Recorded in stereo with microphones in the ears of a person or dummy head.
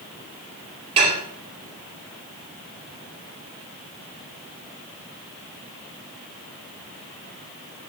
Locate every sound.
1.0 s dishes clattering: 30° right (ahead or behind), 2.5 m